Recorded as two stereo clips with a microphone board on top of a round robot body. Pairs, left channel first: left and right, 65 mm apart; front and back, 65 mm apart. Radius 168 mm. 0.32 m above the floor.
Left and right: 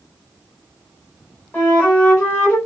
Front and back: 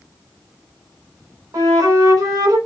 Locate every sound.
1.5 s a flute: 155° left, 3.5 m